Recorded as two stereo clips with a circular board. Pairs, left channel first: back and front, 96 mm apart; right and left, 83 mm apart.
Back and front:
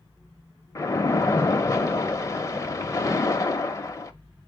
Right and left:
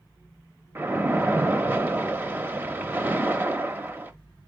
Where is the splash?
140° left, 0.7 m.